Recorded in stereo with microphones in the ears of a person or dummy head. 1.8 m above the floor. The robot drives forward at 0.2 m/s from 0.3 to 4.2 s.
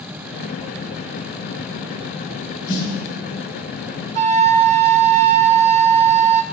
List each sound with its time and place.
2.7 s a snare drum: 40° right (ahead or behind), 5 m; by 2.9 s 35° right (ahead or behind), 5 m
4.2 s a flute: 40° right (ahead or behind), 0.6 m